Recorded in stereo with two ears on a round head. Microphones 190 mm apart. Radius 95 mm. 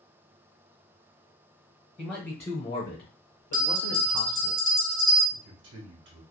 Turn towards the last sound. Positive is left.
turn(degrees=-65)  # may be behind; listen again after turning